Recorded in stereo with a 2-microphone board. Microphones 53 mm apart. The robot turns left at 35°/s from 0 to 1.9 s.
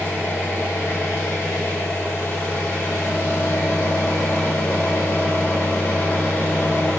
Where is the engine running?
140° left, 1.4 m; by 7.0 s 70° left, 1.4 m.